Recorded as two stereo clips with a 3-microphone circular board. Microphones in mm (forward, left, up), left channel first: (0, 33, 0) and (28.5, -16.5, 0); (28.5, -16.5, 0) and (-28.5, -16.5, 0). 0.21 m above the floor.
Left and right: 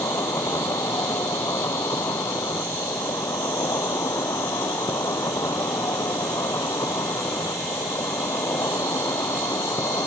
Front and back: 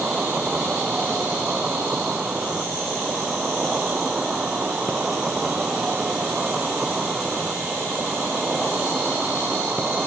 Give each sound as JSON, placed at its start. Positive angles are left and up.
{"t": 0.0, "sound": "an insect", "azimuth_deg": 110, "distance_m": 0.9}